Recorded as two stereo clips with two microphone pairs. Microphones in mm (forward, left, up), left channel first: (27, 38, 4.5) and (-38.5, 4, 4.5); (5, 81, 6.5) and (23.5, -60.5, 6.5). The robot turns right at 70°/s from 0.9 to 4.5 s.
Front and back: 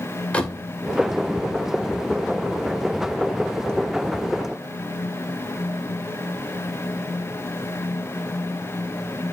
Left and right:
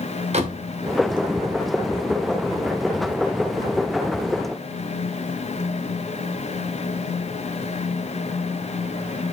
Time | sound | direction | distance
0.3 | a door slam | 45° right | 2.5 m